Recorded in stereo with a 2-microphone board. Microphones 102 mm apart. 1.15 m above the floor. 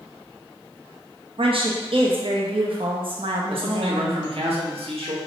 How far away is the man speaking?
About 0.9 m.